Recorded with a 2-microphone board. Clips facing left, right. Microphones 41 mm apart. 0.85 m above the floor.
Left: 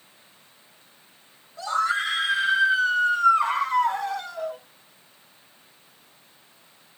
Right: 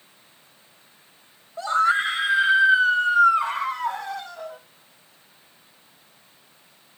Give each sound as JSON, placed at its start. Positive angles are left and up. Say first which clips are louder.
{"t": 1.6, "sound": "a scream", "louder": "right 4 dB", "side_deg": -30, "distance_m": 4.5}